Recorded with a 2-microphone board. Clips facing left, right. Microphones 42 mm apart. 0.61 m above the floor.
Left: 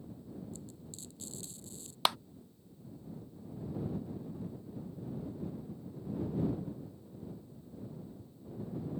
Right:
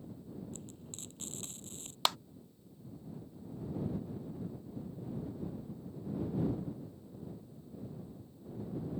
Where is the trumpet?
I don't hear a trumpet.